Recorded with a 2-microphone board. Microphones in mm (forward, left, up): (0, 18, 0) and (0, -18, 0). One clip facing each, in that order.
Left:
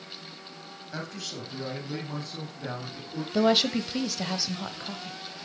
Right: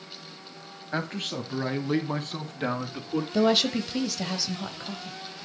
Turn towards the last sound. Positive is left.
turn(degrees=5)  # may be behind; listen again after turning